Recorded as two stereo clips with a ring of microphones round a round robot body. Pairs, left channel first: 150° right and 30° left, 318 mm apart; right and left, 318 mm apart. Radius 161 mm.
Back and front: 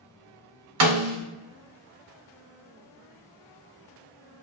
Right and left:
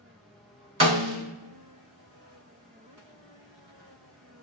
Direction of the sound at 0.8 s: 15° left.